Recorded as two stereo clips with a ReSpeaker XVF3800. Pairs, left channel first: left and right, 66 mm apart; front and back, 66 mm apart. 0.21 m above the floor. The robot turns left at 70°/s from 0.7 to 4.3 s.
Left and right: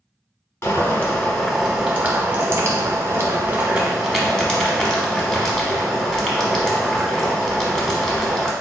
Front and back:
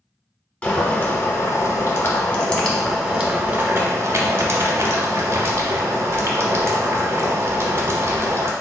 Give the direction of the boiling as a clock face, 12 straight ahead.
10 o'clock.